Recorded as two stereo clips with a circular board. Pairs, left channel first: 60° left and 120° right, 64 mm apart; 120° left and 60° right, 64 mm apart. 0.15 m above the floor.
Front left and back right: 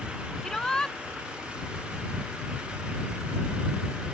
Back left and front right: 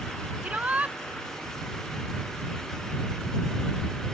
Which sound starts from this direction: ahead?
A shout, at 0.4 s.